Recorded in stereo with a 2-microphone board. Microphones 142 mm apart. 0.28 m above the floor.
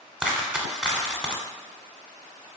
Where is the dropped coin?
5° right (ahead or behind), 0.6 m.